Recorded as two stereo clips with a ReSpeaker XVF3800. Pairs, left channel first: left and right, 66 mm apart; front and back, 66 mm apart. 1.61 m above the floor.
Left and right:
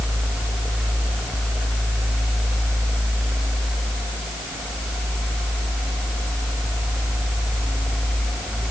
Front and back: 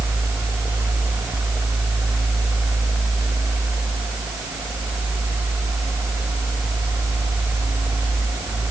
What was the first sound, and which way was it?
Only background noise.